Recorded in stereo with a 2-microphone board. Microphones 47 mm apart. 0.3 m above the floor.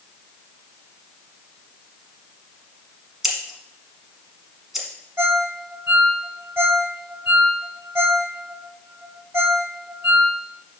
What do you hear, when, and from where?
3.2 s scissors: 5° right (ahead or behind), 1.1 m
5.2 s a ringtone: 65° right (ahead or behind), 0.9 m